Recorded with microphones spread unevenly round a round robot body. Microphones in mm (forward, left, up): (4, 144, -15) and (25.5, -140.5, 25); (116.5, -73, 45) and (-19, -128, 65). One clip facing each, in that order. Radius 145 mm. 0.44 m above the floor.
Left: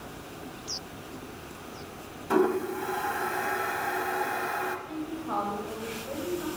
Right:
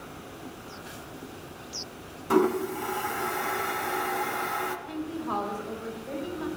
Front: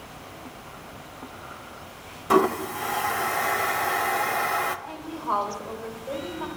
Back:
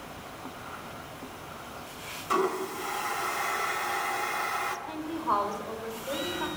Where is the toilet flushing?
10° right, 0.6 m.